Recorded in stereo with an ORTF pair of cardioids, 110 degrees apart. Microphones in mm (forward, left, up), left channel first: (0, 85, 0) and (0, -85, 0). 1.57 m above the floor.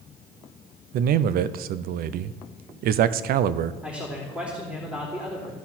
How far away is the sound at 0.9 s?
About 0.5 m.